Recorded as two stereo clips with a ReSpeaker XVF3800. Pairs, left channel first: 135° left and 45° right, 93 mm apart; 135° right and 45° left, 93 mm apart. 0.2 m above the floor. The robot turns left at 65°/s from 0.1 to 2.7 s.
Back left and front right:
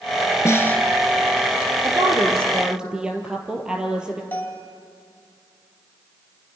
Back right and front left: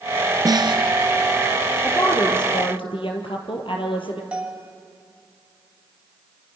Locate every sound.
0.5 s a snare drum: 85° left, 1.3 m; by 0.8 s 60° left, 1.3 m
1.8 s a woman speaking: 70° right, 4 m; by 4.2 s 125° right, 4 m
4.3 s a bell: 105° left, 1.8 m